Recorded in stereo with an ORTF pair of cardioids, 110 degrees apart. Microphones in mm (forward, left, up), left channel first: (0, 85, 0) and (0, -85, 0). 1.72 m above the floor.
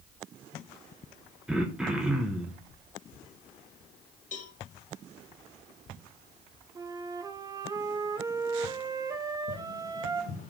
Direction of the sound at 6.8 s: 20° right.